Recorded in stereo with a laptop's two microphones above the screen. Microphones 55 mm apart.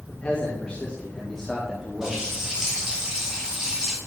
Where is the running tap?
10° right (ahead or behind), 3.5 m.